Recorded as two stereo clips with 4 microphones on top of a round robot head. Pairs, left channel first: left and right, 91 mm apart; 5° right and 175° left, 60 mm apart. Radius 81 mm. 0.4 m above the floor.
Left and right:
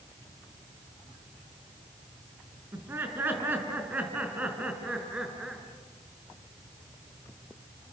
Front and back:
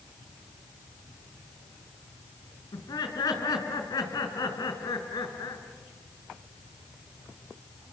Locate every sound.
2.7 s laughter: 20° right, 5 m; by 5.6 s 5° right, 5.5 m